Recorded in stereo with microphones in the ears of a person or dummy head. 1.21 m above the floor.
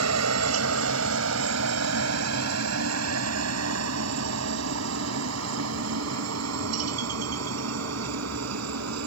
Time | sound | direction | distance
0.0 | a helicopter | 80° right | ?